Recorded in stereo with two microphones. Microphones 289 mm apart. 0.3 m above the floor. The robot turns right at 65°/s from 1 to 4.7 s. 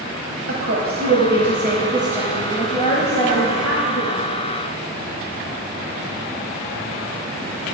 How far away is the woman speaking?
About 1.5 m.